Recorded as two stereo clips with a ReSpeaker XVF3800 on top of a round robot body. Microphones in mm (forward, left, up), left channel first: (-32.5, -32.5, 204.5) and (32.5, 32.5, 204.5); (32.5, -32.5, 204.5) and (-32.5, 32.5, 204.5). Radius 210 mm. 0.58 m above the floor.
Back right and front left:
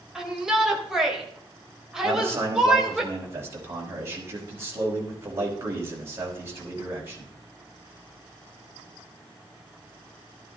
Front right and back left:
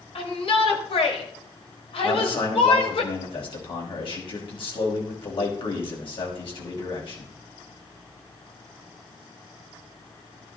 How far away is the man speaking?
About 5 m.